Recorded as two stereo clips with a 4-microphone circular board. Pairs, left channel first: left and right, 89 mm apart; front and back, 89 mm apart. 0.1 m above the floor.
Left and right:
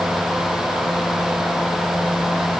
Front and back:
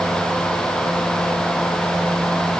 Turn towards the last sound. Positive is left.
No sound to turn to.